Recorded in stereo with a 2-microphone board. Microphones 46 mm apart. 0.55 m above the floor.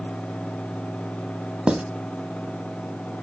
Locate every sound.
1.7 s writing: 20° right (ahead or behind), 0.7 m